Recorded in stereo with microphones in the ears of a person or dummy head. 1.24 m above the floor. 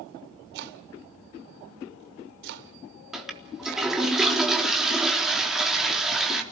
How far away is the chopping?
About 1.3 m.